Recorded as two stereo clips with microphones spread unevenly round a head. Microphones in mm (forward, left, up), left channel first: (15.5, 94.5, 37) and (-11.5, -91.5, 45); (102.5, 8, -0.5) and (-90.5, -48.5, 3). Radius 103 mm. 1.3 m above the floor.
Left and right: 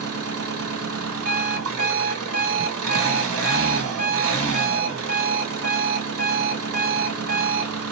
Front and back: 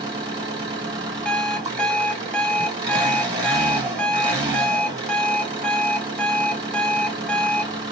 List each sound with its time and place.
0.0 s an engine running: 95° right, 2 m
1.2 s an alarm clock: 70° right, 1.2 m